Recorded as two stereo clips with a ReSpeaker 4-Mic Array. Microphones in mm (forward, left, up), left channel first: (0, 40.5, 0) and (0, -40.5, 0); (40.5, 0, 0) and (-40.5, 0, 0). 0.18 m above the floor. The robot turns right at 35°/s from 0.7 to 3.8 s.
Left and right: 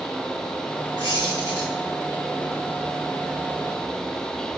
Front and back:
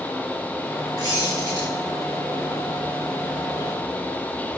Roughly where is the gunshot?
I don't hear a gunshot.